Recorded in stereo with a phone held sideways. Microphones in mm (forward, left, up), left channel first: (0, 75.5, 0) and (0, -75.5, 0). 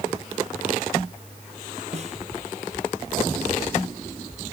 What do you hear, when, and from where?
1.9 s a snare drum: 45° right (ahead or behind)